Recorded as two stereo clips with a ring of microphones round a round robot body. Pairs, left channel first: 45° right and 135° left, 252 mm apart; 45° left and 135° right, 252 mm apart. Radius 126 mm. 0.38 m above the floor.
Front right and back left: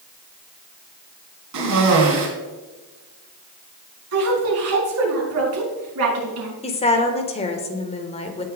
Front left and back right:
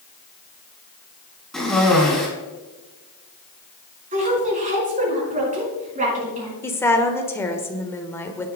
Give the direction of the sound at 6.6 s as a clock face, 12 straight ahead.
1 o'clock.